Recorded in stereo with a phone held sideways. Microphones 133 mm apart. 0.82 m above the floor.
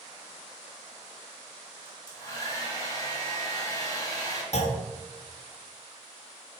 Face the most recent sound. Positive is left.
turn(degrees=60)  # may be behind; listen again after turning